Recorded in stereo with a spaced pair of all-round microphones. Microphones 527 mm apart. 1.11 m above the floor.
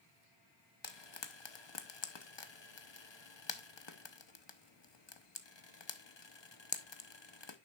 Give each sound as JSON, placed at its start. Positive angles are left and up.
{"t": 0.8, "sound": "frying", "side_deg": 50, "distance_m": 0.9}